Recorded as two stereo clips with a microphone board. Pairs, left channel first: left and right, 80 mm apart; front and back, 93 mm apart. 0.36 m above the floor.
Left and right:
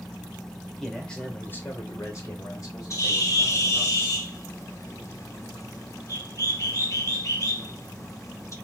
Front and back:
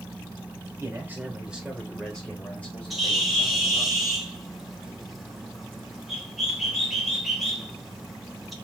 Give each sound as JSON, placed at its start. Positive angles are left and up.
{"t": 0.8, "sound": "a man speaking", "azimuth_deg": 180, "distance_m": 1.0}
{"t": 2.9, "sound": "a bird", "azimuth_deg": 90, "distance_m": 0.9}